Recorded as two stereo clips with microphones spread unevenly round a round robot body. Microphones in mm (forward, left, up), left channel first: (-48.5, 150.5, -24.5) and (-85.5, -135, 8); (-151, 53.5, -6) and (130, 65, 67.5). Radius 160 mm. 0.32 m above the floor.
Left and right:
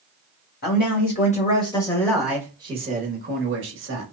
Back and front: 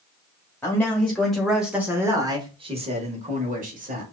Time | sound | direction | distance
0.6 | a man speaking | 115° left | 1.3 m